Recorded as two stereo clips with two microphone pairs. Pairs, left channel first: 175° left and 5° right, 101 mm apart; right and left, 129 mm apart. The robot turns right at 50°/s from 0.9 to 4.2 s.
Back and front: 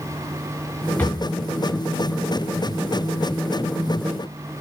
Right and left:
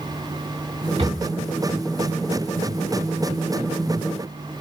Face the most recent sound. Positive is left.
turn(degrees=-90)